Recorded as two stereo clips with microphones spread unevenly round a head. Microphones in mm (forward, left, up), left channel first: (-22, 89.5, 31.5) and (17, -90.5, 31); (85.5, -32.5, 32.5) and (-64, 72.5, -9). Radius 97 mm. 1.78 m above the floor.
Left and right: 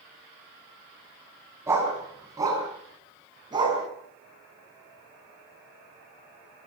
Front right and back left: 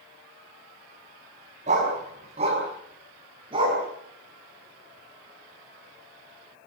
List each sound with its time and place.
1.7 s a dog barking: 155° right, 5 m; by 3.8 s 145° right, 6.5 m